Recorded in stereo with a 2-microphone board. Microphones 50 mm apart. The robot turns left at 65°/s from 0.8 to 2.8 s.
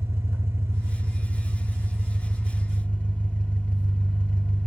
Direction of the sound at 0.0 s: 80° right.